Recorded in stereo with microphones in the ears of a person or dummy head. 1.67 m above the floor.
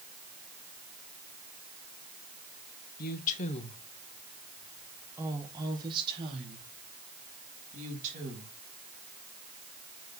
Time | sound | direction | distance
3.0 | a woman speaking | 55° left (ahead or behind) | 1.1 m